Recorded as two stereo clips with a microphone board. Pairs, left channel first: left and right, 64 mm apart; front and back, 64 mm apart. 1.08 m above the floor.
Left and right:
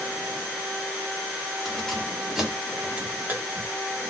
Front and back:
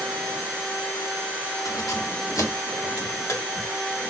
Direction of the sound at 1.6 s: 5° left.